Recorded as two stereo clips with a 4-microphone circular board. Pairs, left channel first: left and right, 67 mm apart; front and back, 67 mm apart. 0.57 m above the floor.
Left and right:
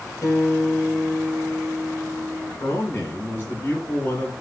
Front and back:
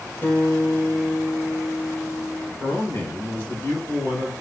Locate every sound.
0.2 s a guitar: 60° left, 2.5 m
2.6 s a man speaking: 40° left, 2 m